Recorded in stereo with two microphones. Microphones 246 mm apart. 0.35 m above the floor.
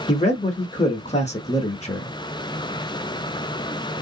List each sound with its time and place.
0.1 s a man speaking: 25° left (ahead or behind), 0.9 m